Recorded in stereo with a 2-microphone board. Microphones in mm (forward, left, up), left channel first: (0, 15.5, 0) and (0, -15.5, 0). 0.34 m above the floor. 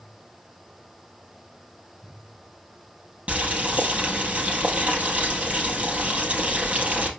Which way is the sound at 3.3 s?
45° right (ahead or behind).